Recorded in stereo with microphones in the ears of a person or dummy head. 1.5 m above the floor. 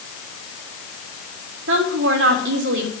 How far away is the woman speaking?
About 3 m.